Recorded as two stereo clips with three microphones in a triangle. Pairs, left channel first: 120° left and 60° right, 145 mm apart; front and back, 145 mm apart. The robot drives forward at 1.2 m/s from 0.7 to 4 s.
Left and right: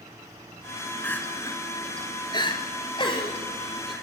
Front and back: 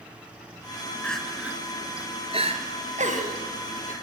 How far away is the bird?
I don't hear a bird.